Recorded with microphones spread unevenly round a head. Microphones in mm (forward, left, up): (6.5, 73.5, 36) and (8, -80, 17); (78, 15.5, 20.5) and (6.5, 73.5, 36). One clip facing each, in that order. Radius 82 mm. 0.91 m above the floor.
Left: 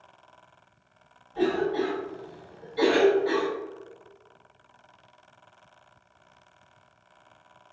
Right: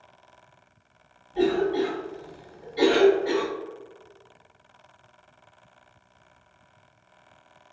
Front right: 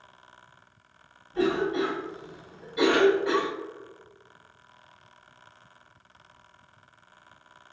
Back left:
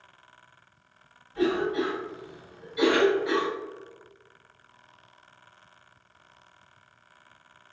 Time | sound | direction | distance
1.3 | a cough | 30° right | 0.9 m